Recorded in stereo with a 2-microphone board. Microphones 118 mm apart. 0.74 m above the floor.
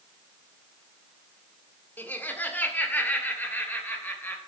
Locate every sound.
2.0 s laughter: 15° left (ahead or behind), 1.8 m